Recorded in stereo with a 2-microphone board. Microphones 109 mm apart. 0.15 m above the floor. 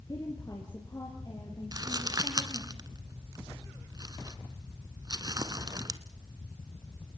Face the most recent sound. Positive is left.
turn(degrees=-35)  # may be behind; listen again after turning